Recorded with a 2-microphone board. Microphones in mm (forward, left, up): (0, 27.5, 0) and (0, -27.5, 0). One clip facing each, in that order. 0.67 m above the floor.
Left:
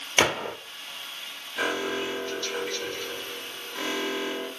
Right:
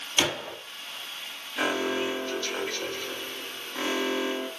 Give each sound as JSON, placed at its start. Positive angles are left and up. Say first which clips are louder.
{"t": 0.2, "sound": "a gunshot", "louder": "left 4 dB", "side_deg": 45, "distance_m": 0.6}
{"t": 1.6, "sound": "an alarm", "louder": "right 1 dB", "side_deg": -10, "distance_m": 1.8}